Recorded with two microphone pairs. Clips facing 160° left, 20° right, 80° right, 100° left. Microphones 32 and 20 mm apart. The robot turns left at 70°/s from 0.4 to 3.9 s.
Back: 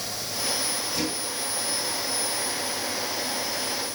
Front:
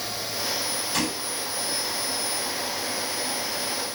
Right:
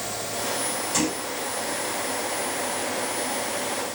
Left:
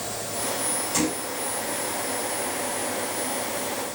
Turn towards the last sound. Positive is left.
turn(degrees=145)